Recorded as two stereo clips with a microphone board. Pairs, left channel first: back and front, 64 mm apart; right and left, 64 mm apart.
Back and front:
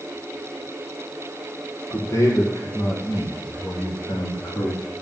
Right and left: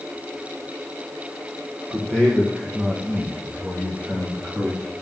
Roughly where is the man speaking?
Behind right.